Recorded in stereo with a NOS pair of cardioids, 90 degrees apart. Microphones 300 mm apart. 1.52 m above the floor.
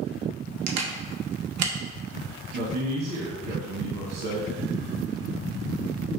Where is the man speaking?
65° right, 1.9 m.